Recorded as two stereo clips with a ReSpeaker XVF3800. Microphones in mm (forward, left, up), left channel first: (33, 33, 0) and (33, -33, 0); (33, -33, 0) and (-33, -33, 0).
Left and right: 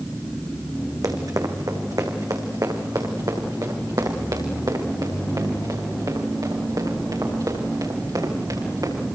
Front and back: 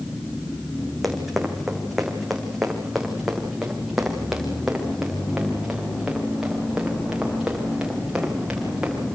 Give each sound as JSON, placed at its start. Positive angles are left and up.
{"t": 1.0, "sound": "running footsteps", "azimuth_deg": -90, "distance_m": 4.0}